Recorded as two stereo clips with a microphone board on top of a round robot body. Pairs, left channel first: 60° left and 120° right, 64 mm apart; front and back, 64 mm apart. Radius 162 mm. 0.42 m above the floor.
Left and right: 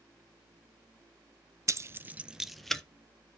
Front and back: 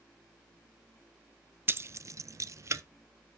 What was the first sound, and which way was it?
Keys jangling, 135° right.